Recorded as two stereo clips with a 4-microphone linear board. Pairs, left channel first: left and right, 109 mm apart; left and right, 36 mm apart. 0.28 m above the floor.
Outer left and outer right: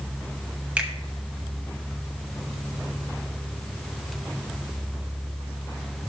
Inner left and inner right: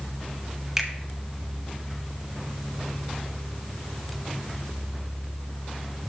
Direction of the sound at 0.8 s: 10° right (ahead or behind).